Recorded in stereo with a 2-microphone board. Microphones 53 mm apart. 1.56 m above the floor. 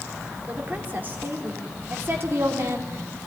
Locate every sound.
0.5 s a woman speaking: 30° right (ahead or behind), 4 m; by 3.2 s 55° right (ahead or behind), 3.5 m